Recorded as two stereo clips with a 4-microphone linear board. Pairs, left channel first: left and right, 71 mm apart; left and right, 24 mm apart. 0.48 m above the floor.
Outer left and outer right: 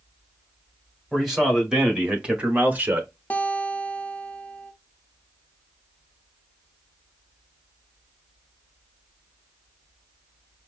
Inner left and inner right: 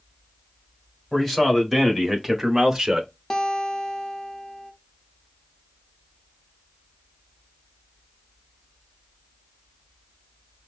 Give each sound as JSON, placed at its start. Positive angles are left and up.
{"t": 1.1, "sound": "a man speaking", "side_deg": 0, "distance_m": 1.9}
{"t": 3.3, "sound": "a guitar", "side_deg": 20, "distance_m": 0.8}